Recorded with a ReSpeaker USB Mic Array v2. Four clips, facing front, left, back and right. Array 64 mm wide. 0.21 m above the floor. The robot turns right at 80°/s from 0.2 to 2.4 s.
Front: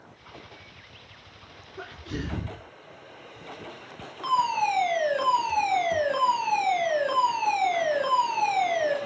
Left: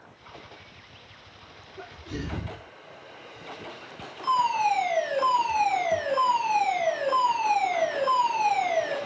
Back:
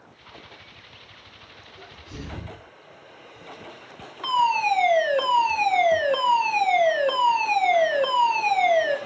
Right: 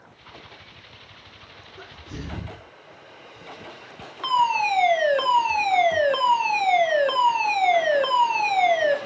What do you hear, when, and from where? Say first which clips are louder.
1.8 s a sneeze: left 3 dB, front 6 dB; 25° right, 2.5 m; by 2.7 s 30° left, 2.5 m
4.2 s a fire alarm: right 2 dB, back 3 dB; 95° right, 5 m